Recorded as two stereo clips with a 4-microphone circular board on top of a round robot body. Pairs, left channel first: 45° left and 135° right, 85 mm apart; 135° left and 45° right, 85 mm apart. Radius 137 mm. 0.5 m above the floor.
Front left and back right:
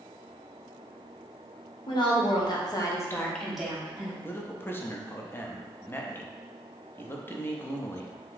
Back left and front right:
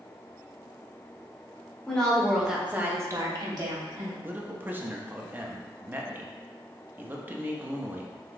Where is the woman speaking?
55° left, 1.7 m; by 4.1 s 70° right, 1.5 m.